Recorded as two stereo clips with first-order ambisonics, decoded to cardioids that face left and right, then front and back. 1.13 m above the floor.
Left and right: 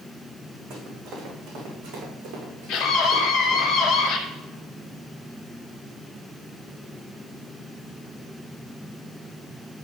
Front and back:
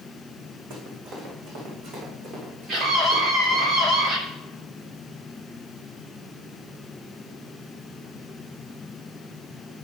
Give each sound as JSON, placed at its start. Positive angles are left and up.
{"t": 0.7, "sound": "running footsteps", "azimuth_deg": -145, "distance_m": 5.0}
{"t": 2.7, "sound": "a scream", "azimuth_deg": 130, "distance_m": 3.0}